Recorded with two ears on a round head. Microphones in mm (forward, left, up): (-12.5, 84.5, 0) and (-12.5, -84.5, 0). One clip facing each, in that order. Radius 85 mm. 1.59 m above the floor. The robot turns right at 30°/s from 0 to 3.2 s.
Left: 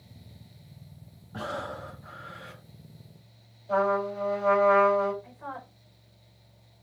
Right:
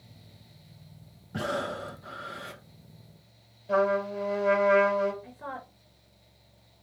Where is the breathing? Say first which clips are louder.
Right 4 dB; 150° right, 1.3 m; by 2.6 s 115° right, 1.3 m.